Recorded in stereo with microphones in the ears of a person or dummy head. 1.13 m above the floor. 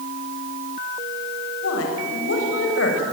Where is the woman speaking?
80° left, 6.5 m.